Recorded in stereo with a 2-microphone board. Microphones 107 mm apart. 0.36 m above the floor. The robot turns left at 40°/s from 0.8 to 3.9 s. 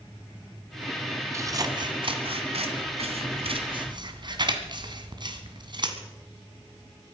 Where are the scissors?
30° right (ahead or behind), 1.7 m; by 6.0 s 45° right (ahead or behind), 1.7 m.